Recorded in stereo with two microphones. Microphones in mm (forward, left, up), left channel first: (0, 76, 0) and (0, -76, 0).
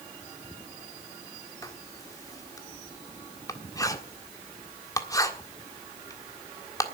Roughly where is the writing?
Left.